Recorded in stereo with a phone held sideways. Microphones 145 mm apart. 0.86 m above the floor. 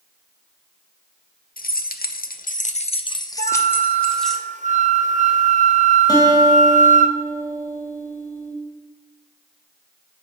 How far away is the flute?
About 0.6 m.